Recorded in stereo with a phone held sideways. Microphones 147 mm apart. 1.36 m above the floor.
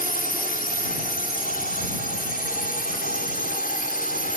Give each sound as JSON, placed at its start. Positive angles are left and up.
{"t": 0.0, "sound": "a drone", "side_deg": 80}